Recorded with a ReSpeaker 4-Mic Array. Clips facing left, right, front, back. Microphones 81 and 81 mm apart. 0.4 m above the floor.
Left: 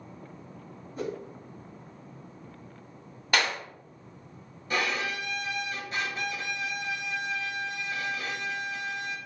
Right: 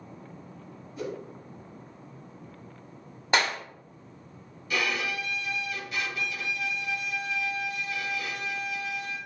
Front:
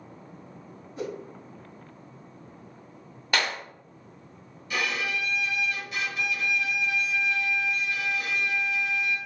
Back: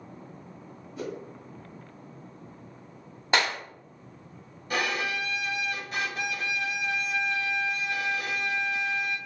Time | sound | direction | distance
1.0 | a whoosh | 50° left | 1.4 m
3.3 | a clap | 135° right | 0.8 m
4.7 | a violin | 140° left | 0.8 m